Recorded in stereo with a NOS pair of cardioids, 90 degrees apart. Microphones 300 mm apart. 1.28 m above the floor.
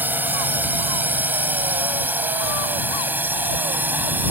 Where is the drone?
5° right.